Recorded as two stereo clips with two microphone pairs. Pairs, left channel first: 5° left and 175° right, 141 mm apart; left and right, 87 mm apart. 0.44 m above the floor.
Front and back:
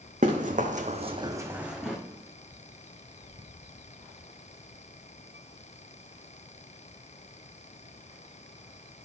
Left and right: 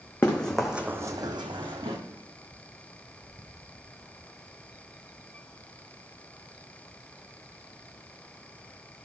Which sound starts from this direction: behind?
Running footsteps, at 0.2 s.